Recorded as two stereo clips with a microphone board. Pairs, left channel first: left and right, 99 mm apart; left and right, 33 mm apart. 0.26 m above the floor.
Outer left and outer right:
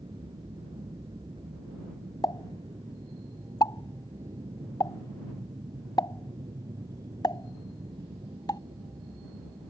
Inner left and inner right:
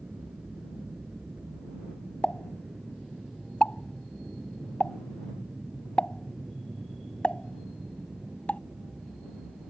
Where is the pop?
45° left (ahead or behind).